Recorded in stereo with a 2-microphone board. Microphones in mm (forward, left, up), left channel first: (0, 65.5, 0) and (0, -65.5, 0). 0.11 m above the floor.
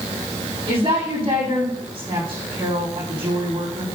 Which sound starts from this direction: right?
A woman speaking, at 0.7 s.